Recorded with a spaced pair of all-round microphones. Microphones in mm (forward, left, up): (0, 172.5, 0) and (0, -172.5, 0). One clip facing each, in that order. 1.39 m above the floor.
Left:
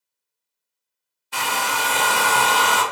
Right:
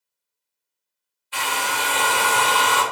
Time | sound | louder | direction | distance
1.3 | a hair dryer | left 1 dB | 60° left (ahead or behind) | 0.6 m